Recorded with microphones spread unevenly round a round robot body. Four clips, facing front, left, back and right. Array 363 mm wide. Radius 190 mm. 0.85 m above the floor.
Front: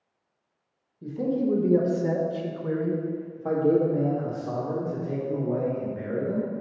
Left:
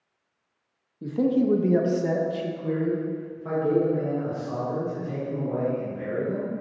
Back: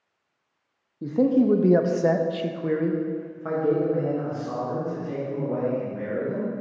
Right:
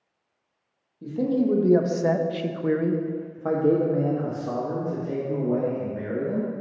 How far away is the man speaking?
About 0.9 m.